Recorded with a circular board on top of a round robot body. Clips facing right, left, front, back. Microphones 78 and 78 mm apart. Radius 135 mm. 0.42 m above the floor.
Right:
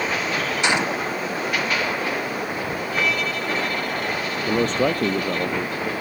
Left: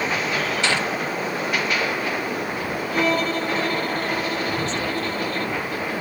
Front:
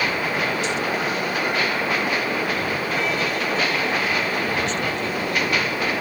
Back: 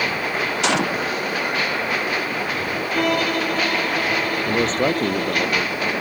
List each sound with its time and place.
0.6 s a gunshot: 160° right
2.9 s a violin: 145° left
4.5 s a man speaking: 130° right